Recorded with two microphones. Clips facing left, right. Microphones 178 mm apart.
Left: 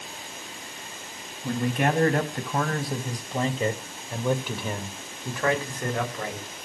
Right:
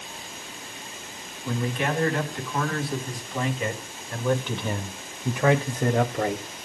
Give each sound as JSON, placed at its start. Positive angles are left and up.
{"t": 1.4, "sound": "a man speaking", "side_deg": 55, "distance_m": 3.0}